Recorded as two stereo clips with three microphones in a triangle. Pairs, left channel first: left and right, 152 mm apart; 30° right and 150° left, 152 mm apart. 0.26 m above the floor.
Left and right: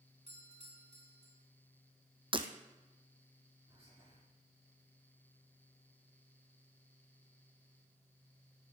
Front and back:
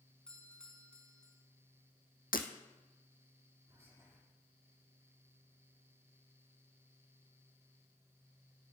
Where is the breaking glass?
35° right, 1.6 m.